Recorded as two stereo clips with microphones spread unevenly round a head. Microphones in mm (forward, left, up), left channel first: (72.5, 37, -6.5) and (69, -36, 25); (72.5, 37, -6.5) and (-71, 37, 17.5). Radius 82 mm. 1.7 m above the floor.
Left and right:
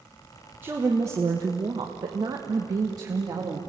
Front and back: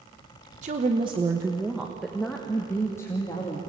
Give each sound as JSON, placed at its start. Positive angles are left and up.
{"t": 0.6, "sound": "a woman speaking", "azimuth_deg": -150, "distance_m": 1.2}